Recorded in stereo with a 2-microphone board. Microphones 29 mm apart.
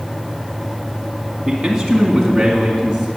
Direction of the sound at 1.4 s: 10° right (ahead or behind).